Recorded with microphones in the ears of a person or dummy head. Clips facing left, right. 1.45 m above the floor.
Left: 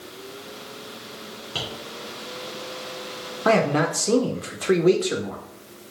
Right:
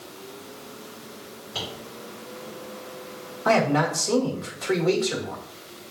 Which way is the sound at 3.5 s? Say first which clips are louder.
Left 1 dB; 45° left (ahead or behind).